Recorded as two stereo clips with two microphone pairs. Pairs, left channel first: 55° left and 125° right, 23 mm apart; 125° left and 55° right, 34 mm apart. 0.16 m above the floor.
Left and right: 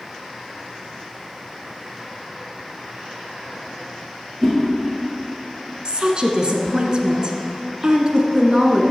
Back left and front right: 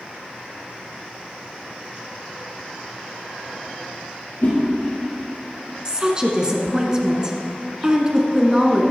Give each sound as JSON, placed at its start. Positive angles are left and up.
{"t": 4.4, "sound": "a whoosh", "azimuth_deg": 145, "distance_m": 3.5}
{"t": 5.8, "sound": "a woman speaking", "azimuth_deg": -110, "distance_m": 1.3}